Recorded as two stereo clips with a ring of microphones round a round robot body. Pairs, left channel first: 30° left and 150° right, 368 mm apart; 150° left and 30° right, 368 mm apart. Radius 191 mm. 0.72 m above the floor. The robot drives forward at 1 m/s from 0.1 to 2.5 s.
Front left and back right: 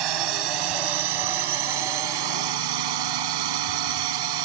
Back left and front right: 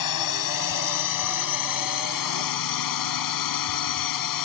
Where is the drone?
170° right; by 4.5 s 175° right.